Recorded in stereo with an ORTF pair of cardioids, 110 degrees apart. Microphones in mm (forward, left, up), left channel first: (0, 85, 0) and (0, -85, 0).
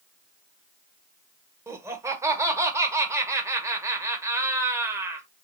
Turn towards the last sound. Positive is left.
turn(degrees=-15)